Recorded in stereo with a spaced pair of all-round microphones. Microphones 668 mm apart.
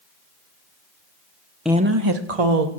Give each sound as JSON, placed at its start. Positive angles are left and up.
{"t": 1.6, "sound": "a woman speaking", "side_deg": 0, "distance_m": 0.8}